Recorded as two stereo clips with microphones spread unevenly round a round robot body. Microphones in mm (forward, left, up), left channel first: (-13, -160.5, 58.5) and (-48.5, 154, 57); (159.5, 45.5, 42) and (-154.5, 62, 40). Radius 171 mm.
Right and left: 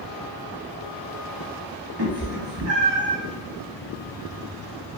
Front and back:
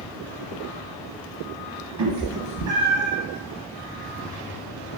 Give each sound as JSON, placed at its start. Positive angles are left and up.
{"t": 2.0, "sound": "a cat meowing", "azimuth_deg": 145, "distance_m": 0.9}